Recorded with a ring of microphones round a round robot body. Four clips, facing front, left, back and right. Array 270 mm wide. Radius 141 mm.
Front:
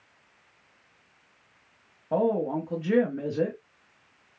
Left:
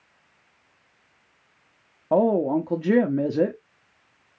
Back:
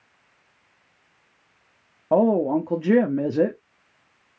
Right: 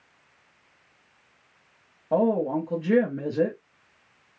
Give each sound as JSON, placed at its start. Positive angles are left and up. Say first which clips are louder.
{"t": 2.1, "sound": "a woman speaking", "louder": "left 3 dB, back 6 dB", "azimuth_deg": 145, "distance_m": 0.9}